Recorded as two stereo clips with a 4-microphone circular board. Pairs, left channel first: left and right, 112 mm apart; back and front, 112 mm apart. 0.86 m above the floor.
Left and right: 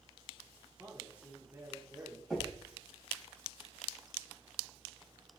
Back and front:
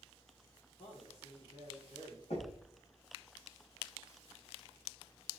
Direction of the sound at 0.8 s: 165° right.